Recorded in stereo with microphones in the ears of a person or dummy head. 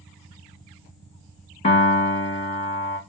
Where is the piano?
30° left (ahead or behind), 1.0 m.